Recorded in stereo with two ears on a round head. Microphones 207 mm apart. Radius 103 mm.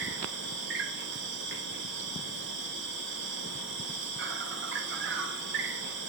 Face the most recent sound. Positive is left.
turn(degrees=-55)  # may be behind; listen again after turning